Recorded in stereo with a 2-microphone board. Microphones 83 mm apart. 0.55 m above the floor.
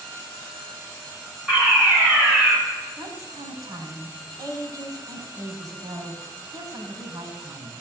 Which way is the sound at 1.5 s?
10° right (ahead or behind).